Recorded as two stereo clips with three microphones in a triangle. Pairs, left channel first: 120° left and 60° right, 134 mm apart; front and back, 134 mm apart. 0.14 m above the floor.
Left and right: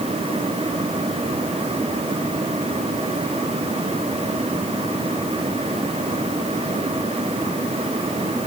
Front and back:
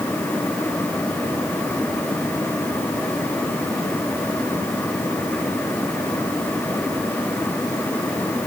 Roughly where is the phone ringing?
No phone ringing in this recording.